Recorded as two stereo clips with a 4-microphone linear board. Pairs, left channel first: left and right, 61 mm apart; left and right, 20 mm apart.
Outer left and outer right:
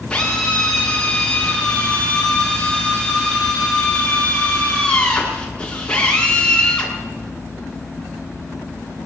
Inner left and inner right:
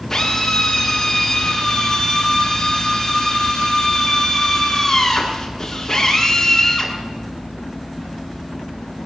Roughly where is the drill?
Centre.